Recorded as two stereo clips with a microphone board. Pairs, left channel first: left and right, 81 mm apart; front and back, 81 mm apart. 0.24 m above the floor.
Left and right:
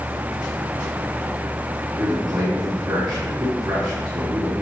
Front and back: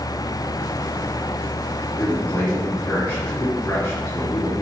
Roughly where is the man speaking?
Ahead right.